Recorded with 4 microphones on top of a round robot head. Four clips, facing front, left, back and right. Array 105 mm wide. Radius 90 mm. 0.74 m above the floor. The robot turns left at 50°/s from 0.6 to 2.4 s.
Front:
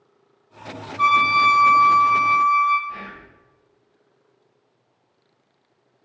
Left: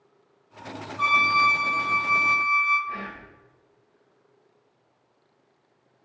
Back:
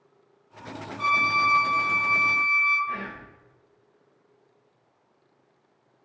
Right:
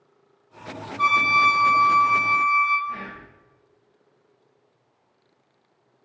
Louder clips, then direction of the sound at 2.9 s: Right 1 dB, back 1 dB; 170° left.